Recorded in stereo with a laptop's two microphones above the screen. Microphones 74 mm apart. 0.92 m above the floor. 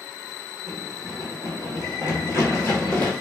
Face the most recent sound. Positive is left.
turn(degrees=25)  # may be behind; listen again after turning